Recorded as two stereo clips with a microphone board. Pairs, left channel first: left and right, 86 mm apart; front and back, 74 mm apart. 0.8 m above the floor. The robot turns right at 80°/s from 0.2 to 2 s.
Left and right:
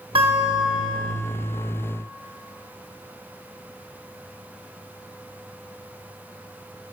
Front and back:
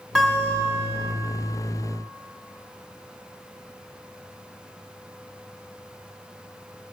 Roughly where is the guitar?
Right.